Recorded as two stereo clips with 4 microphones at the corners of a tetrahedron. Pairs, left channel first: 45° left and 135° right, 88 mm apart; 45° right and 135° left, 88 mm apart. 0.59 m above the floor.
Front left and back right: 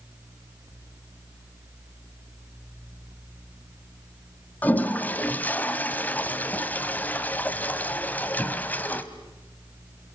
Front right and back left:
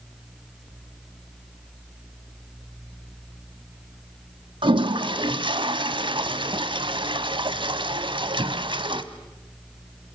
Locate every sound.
4.6 s a toilet flushing: 115° left, 1.3 m